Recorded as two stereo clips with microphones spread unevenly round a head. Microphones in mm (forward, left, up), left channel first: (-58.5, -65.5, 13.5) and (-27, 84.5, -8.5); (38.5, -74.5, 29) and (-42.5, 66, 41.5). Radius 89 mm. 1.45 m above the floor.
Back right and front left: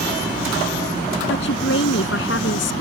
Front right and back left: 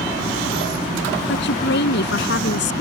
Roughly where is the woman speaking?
Right.